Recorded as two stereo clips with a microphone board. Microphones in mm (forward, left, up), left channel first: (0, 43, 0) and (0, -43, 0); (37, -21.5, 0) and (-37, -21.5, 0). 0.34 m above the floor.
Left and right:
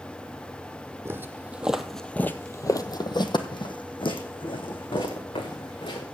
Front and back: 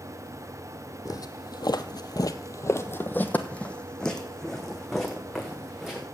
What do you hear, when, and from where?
1.1 s footsteps: 30° right, 0.9 m; by 6.1 s 95° left, 2.5 m